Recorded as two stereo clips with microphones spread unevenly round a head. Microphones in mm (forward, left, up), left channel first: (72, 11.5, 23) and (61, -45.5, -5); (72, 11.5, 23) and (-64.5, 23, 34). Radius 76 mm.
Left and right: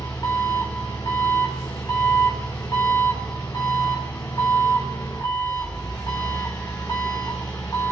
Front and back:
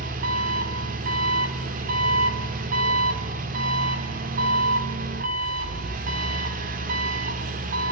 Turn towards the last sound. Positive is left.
turn(degrees=150)